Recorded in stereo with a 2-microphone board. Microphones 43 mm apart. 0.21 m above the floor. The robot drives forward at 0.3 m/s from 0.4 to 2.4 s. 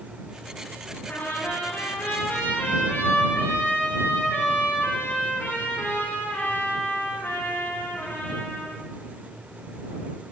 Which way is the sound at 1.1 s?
55° left (ahead or behind).